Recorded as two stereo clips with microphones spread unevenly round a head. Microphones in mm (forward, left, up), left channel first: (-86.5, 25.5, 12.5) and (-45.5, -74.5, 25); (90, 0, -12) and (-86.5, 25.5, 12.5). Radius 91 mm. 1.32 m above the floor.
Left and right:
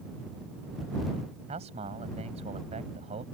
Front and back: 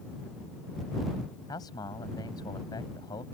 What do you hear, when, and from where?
1.5 s a man speaking: 80° right